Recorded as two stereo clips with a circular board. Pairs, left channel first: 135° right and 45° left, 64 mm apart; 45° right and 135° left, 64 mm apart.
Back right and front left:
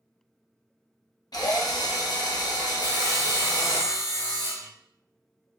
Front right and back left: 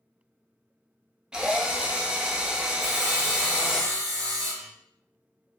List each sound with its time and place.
1.3 s a drill: 150° right, 0.6 m
2.8 s sawing: 130° right, 1.9 m